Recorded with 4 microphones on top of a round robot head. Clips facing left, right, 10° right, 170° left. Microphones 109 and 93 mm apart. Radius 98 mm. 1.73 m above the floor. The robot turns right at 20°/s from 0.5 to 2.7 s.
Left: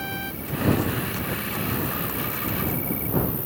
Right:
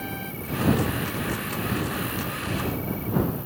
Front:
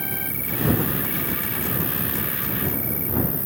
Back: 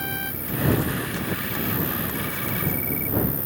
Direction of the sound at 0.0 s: 10° left.